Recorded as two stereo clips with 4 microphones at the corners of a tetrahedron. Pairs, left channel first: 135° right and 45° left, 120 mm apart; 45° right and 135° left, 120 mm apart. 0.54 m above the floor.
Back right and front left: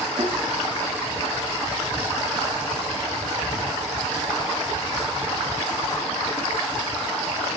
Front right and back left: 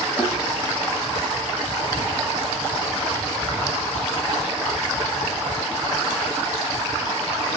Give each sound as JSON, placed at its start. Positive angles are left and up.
{"t": 0.2, "sound": "a thud", "azimuth_deg": 60, "distance_m": 9.0}